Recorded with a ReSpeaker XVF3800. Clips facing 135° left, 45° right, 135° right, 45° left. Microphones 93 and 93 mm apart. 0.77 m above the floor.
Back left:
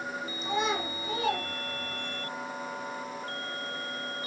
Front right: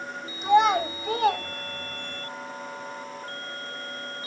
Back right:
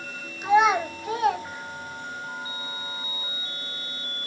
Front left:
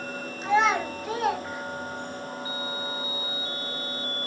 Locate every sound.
0.4 s a child speaking: 60° right, 4 m; by 2.2 s 15° right, 2.5 m